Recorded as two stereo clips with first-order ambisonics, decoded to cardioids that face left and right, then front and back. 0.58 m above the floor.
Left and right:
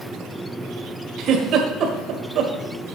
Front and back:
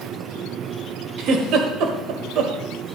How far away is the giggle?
About 1.6 m.